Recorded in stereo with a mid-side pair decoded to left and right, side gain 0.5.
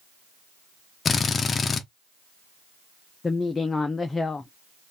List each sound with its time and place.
1.1 s a drill: 35° left, 0.6 m
3.2 s a woman speaking: 25° left, 0.5 m